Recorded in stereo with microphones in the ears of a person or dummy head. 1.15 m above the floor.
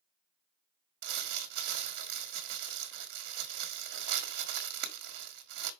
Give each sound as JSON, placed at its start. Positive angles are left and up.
{"t": 1.0, "sound": "crumpling", "side_deg": -50, "distance_m": 1.2}